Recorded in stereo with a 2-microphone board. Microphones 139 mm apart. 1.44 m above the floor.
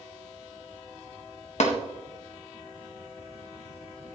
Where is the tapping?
60° left (ahead or behind), 1.5 m.